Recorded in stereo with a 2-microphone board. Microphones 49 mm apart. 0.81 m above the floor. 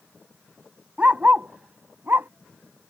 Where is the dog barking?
30° right (ahead or behind); by 2.3 s 55° right (ahead or behind).